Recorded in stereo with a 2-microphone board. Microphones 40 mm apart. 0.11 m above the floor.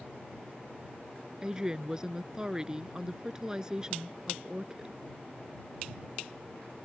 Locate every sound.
1.4 s a woman speaking: 20° right (ahead or behind)